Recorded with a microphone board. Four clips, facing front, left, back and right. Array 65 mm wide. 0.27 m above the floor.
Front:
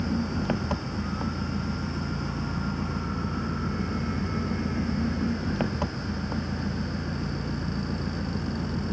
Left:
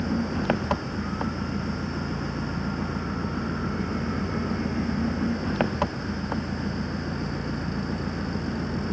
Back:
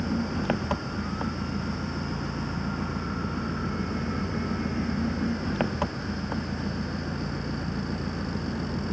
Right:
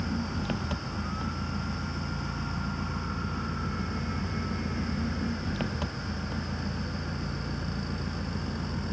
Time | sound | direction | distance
0.0 | an engine running | 100° left | ?